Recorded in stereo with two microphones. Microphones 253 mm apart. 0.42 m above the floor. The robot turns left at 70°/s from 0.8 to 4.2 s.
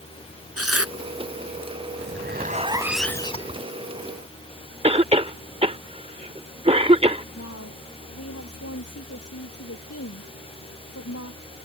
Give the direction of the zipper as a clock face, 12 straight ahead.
4 o'clock.